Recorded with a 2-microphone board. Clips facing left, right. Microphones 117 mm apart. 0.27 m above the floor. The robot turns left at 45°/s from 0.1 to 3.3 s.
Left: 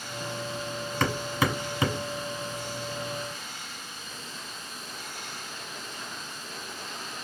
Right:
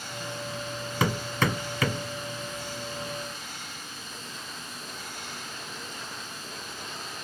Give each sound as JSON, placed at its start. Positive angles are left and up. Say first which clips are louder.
{"t": 1.0, "sound": "hammering", "louder": "even", "side_deg": -5, "distance_m": 1.2}